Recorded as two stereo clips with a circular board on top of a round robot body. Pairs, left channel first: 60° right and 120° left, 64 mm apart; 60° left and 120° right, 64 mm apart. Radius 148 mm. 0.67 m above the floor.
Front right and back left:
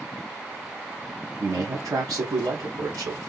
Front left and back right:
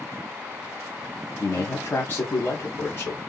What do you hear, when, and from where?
1.4 s a man speaking: 110° left, 2 m